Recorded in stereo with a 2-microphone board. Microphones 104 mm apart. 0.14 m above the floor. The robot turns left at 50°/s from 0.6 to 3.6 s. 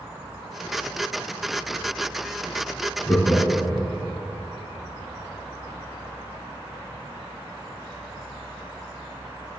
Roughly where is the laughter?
Left.